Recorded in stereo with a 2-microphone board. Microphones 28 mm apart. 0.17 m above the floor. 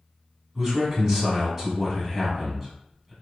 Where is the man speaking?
20° right (ahead or behind), 1.2 m.